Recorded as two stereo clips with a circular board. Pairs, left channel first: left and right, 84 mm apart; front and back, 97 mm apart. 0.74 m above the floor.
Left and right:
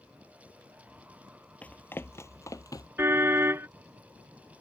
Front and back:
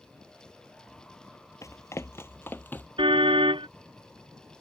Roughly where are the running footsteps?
Ahead left.